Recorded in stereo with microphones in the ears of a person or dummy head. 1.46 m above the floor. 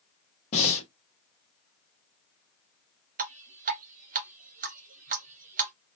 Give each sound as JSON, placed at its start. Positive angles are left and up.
{"t": 0.5, "sound": "breathing", "side_deg": 35, "distance_m": 0.9}
{"t": 3.2, "sound": "dripping", "side_deg": -35, "distance_m": 0.5}